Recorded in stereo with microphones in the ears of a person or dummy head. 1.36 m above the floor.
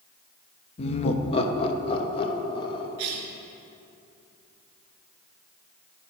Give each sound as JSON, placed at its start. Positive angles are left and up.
{"t": 0.8, "sound": "laughter", "side_deg": 35, "distance_m": 0.8}
{"t": 3.0, "sound": "a cough", "side_deg": -55, "distance_m": 2.0}